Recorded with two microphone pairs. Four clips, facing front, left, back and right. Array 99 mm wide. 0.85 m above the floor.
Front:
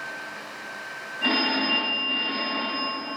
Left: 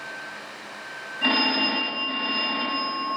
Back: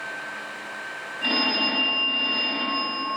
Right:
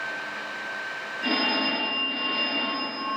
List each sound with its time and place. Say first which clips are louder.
1.2 s a phone ringing: left 2 dB, front 1 dB; 70° left, 3.5 m